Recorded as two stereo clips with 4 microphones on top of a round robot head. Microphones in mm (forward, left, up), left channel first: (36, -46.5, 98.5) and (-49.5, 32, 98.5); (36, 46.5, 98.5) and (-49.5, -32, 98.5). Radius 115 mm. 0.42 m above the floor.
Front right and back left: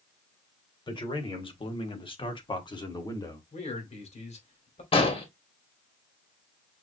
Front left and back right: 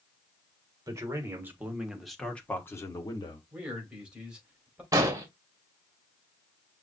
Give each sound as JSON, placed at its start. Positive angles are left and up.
{"t": 0.9, "sound": "a man speaking", "azimuth_deg": -80, "distance_m": 1.9}
{"t": 3.5, "sound": "a man speaking", "azimuth_deg": -55, "distance_m": 2.5}
{"t": 4.9, "sound": "an explosion", "azimuth_deg": -75, "distance_m": 1.8}